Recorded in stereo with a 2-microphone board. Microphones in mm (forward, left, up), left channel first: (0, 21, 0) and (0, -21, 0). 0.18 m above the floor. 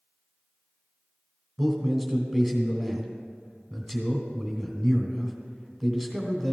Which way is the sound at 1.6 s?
Centre (ahead or behind).